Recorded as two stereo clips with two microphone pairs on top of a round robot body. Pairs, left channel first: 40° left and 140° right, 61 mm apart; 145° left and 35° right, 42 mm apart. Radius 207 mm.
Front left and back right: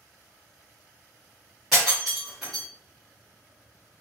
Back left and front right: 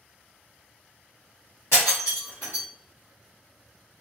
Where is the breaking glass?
140° left, 1.2 m.